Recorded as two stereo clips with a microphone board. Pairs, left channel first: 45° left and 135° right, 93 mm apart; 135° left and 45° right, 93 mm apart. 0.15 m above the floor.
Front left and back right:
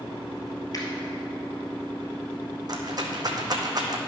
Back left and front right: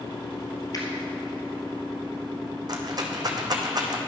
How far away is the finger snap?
About 2 m.